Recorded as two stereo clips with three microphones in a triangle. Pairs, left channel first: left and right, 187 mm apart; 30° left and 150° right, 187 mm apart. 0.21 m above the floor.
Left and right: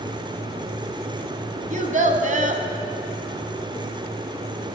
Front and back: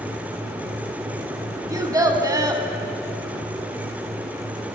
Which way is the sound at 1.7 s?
85° right.